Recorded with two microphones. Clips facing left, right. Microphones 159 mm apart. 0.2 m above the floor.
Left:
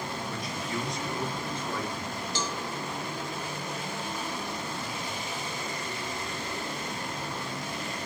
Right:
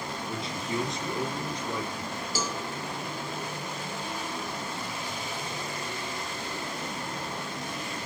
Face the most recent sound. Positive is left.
turn(degrees=-5)  # may be behind; listen again after turning